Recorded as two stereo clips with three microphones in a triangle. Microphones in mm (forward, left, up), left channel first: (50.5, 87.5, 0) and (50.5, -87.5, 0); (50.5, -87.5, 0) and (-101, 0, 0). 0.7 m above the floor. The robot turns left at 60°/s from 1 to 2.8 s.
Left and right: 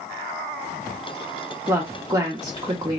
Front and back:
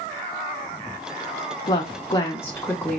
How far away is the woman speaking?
About 0.6 m.